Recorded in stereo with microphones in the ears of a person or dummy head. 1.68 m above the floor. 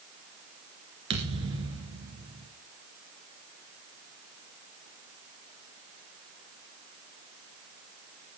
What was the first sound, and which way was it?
A thud, 30° right (ahead or behind).